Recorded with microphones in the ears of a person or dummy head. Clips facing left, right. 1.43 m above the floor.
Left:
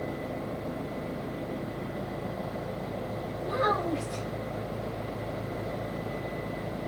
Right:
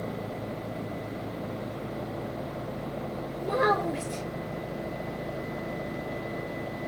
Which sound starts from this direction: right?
A child speaking, at 3.4 s.